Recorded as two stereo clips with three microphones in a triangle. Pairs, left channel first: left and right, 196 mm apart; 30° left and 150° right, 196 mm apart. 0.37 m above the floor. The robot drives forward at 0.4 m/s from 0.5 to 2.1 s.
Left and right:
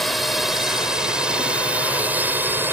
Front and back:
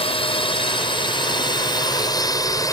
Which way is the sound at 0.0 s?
Straight ahead.